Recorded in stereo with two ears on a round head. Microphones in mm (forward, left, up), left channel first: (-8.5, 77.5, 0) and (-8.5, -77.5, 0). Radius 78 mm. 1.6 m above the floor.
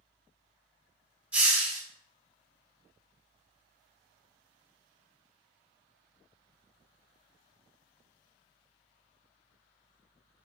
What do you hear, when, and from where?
1.3 s a hiss: 10° right (ahead or behind), 1.2 m